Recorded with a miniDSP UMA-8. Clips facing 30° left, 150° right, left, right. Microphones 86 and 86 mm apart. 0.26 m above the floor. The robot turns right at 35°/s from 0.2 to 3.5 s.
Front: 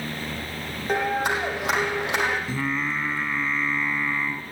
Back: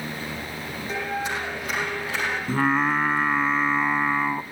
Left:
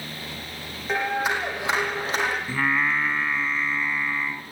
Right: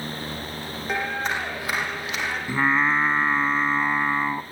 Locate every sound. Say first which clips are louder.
0.9 s a clap: front 5 dB, left 2 dB; 5° right, 7.5 m; by 2.4 s 50° left, 7.5 m
2.5 s singing: back 5 dB, right 7 dB; 160° right, 1.2 m; by 4.4 s 125° right, 1.2 m